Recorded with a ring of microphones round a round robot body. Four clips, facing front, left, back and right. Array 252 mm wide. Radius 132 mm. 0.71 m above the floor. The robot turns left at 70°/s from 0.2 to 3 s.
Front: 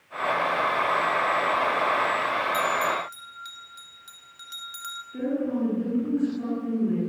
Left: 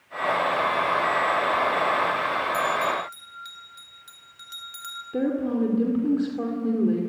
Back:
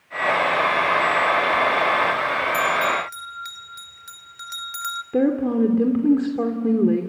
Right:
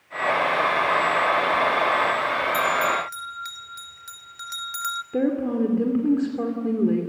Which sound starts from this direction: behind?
A woman speaking, at 5.1 s.